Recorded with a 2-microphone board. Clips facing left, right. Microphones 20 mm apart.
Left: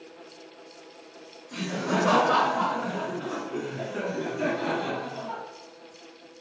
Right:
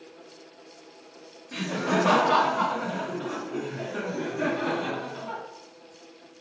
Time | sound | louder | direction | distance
1.5 | laughter | right 2 dB | 30° right (ahead or behind) | 1.0 m